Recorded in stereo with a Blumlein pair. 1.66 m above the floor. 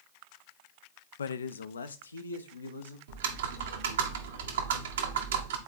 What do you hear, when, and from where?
1.2 s a man speaking: 65° left, 0.6 m; by 3.0 s 80° left, 1.5 m
3.1 s typing on a keyboard: 65° right, 1.4 m